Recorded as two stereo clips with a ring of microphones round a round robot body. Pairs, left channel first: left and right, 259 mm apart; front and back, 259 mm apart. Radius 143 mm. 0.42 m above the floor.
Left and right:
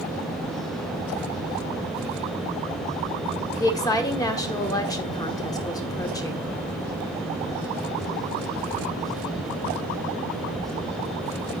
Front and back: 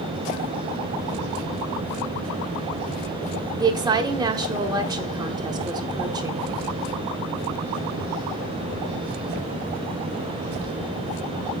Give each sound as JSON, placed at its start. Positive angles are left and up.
{"t": 3.6, "sound": "a woman speaking", "azimuth_deg": 140, "distance_m": 1.0}